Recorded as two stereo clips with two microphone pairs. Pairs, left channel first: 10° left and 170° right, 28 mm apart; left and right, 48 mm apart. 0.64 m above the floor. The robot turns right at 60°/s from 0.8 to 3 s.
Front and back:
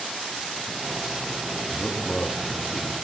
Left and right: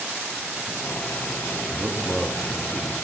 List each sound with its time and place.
1.7 s a man speaking: 50° right, 0.6 m; by 2.9 s 25° left, 0.6 m